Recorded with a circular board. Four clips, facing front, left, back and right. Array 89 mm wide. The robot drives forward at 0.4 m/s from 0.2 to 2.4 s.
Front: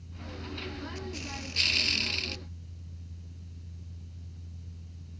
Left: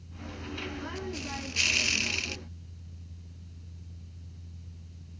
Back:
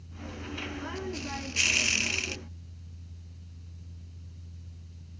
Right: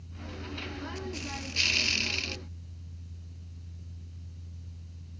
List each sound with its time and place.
Only background noise.